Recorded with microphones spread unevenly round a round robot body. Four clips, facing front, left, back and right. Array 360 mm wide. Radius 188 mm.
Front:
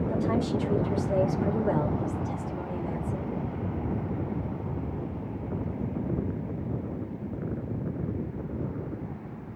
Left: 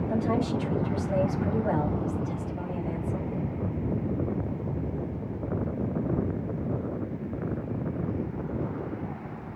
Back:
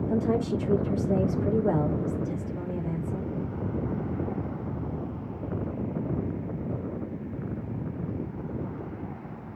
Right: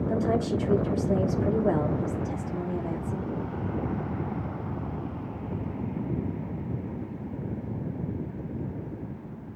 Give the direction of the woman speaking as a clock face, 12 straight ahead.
4 o'clock.